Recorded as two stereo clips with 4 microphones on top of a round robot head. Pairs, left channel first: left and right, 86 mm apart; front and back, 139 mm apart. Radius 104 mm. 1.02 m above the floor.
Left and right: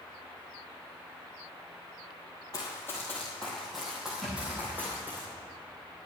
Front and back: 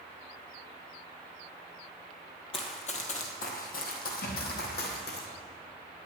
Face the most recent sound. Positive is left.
turn(degrees=0)